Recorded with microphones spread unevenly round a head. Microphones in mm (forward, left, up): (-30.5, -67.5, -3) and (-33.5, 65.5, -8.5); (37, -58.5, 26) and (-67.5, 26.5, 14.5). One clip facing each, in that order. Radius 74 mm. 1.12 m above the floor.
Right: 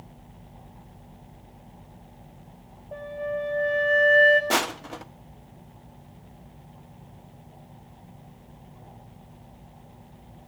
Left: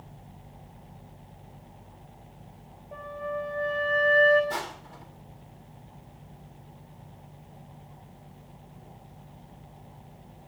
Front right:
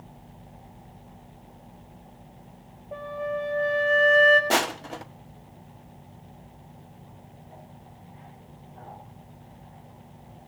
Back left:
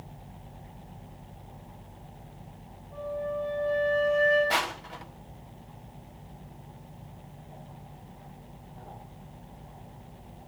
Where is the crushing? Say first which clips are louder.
Right 8 dB, front right 5 dB; 80° right, 1.0 m.